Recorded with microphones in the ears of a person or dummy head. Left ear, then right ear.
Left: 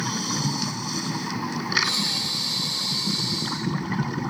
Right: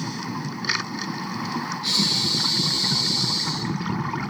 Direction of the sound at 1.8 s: 5° left (ahead or behind).